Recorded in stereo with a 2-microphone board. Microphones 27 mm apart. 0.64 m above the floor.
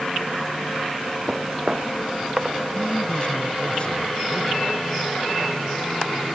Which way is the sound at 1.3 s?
25° right (ahead or behind).